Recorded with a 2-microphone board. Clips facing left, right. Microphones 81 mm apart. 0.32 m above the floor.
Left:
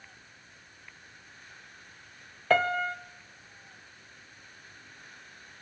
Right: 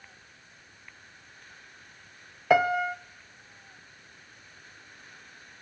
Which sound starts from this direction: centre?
A piano, at 2.5 s.